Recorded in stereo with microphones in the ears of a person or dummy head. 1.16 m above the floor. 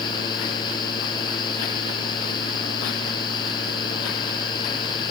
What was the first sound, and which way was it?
A fan, 25° left (ahead or behind).